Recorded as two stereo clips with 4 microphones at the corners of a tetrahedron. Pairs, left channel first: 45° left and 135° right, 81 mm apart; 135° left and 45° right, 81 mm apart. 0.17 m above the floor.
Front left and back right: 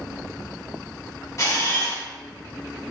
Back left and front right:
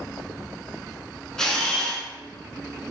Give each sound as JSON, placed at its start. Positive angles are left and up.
{"t": 1.4, "sound": "a camera shutter", "azimuth_deg": 60, "distance_m": 0.6}